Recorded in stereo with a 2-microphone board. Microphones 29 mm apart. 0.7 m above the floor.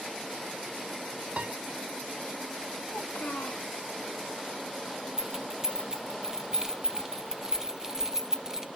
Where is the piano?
50° right (ahead or behind), 0.6 m.